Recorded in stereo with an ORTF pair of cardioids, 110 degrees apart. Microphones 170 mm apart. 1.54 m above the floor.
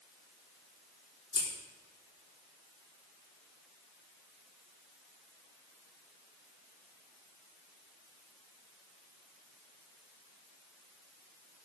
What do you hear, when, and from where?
1.3 s scissors: 30° left, 4 m